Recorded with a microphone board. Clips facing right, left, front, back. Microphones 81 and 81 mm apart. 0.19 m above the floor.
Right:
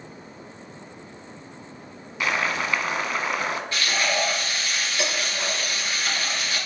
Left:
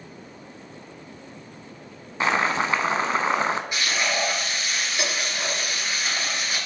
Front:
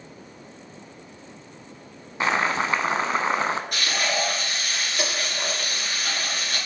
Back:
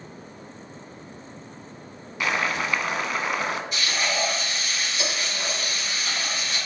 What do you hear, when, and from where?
2.2 s boiling: 45° left, 0.7 m
3.7 s frying: 15° left, 3.5 m